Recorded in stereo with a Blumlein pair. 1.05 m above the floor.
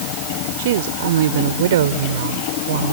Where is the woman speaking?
55° right; by 2.9 s 60° right.